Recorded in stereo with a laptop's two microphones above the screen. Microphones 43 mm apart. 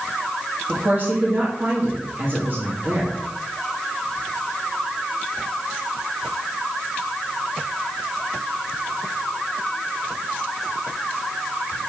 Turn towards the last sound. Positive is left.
turn(degrees=-45)  # may be behind; listen again after turning